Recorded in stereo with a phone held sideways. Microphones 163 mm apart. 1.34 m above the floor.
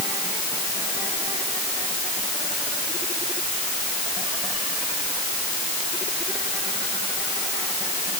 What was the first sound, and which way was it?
Only background noise.